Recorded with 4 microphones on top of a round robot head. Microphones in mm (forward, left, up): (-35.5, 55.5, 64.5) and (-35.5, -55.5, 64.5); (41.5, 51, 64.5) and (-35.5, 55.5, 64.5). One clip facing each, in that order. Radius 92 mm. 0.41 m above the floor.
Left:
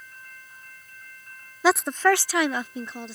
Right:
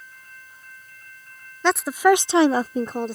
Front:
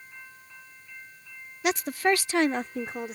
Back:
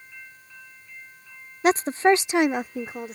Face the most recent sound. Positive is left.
turn(degrees=-90)